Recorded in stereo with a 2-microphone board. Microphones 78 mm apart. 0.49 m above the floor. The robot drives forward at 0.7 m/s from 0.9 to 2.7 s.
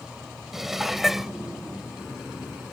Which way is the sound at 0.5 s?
5° right (ahead or behind).